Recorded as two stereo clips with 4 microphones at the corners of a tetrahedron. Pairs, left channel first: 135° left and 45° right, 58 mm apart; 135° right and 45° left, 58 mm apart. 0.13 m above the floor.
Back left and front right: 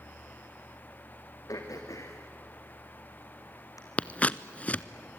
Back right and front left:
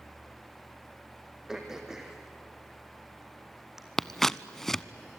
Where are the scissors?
150° left, 0.6 m.